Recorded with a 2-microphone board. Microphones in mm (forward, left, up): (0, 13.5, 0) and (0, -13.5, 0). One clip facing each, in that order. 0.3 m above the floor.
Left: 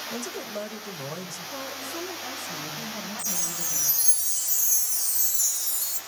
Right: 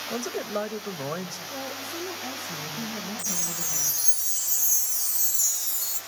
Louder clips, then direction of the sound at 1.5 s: Left 1 dB; 40° right (ahead or behind).